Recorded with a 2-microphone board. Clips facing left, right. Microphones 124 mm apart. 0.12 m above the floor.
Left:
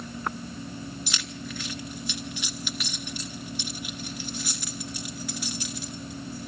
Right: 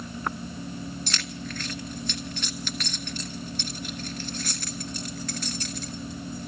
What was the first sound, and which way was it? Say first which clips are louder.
Keys jangling: right 1 dB; 10° left (ahead or behind).